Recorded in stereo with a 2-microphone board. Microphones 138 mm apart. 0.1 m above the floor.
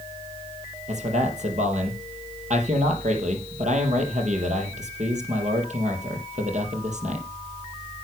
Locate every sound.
0.9 s a man speaking: 60° right (ahead or behind), 3.5 m